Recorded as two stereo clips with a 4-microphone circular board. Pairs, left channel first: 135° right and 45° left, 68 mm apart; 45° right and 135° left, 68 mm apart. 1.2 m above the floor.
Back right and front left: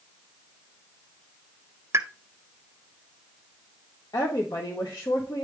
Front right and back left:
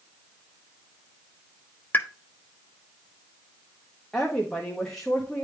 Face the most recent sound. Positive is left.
turn(degrees=-125)